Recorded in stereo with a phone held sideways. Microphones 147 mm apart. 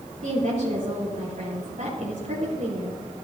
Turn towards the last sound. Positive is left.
turn(degrees=-70)  # may be behind; listen again after turning